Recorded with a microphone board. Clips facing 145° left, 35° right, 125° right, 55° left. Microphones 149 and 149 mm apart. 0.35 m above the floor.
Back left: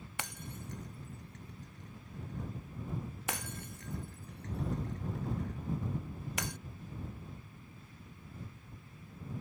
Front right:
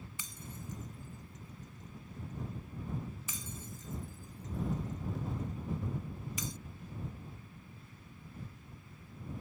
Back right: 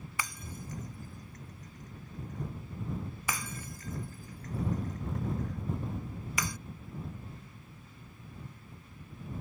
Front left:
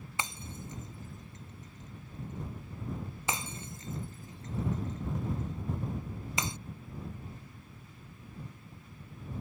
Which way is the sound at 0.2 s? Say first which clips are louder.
Back left 7 dB, front left 1 dB; 120° left.